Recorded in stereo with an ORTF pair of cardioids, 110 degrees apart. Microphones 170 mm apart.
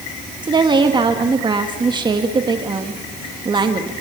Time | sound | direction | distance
0.4 | a woman speaking | 30° right | 1.7 m